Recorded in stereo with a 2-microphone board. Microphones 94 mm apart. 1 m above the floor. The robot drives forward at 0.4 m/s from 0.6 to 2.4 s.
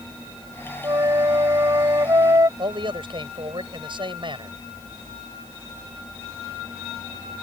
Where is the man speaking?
60° right (ahead or behind).